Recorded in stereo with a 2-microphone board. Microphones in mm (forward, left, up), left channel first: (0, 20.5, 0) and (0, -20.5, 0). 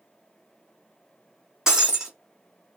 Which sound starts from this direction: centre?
Breaking glass, at 1.7 s.